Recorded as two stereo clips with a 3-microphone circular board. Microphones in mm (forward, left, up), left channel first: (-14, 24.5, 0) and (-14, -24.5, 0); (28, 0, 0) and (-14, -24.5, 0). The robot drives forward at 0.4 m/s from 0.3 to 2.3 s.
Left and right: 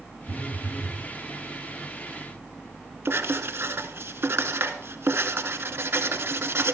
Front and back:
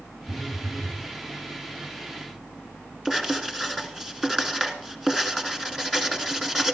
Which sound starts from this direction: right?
Writing, at 3.0 s.